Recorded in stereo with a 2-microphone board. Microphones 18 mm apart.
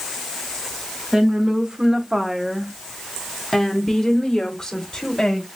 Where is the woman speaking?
50° right (ahead or behind), 1.2 m; by 5.5 s 40° left (ahead or behind), 1.7 m.